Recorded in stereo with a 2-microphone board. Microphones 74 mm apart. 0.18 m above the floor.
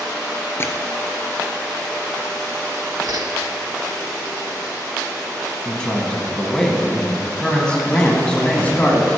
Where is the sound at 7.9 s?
25° left (ahead or behind), 1.3 m.